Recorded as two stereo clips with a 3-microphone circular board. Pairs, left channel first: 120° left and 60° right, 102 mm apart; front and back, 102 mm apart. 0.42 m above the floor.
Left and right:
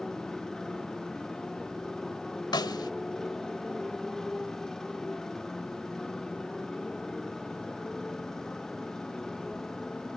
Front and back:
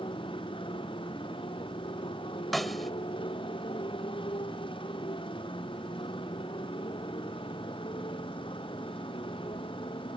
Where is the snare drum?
90° left.